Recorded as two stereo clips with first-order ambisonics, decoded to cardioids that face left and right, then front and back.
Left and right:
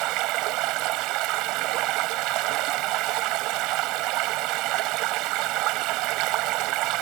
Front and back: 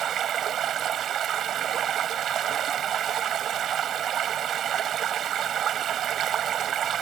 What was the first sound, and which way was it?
Running water, 120° right.